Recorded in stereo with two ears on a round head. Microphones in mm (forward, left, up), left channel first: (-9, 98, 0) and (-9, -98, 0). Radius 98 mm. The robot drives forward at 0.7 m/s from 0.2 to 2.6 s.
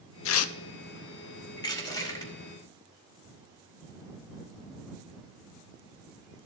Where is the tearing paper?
60° left (ahead or behind), 0.6 m; by 0.5 s 75° left (ahead or behind), 0.5 m.